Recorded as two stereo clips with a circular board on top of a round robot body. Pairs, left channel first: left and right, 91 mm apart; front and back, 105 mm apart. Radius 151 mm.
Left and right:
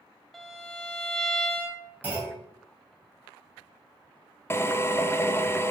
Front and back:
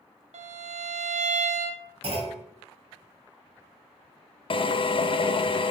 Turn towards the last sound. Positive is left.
turn(degrees=30)